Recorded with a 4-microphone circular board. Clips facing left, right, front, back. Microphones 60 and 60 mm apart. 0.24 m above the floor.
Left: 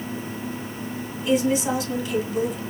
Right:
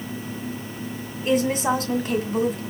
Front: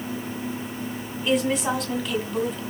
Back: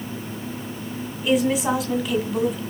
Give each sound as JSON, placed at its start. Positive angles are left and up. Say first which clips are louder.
{"t": 1.2, "sound": "a woman speaking", "louder": "even, back 3 dB", "azimuth_deg": -95, "distance_m": 2.0}